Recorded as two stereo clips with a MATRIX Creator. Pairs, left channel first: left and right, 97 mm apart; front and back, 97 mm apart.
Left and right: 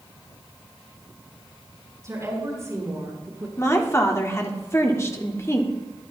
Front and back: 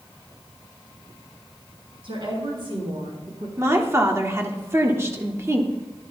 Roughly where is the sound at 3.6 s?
Behind left.